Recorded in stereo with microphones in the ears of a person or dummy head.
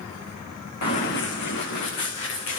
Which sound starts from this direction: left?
Running footsteps, at 0.8 s.